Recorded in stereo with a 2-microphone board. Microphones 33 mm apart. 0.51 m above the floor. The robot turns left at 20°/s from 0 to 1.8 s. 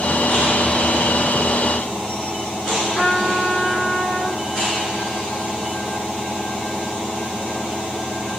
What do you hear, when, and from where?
2.9 s a trumpet: 30° left (ahead or behind), 1.3 m